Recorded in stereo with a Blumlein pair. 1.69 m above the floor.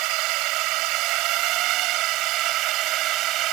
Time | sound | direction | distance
0.0 | a drone | 40° right | ?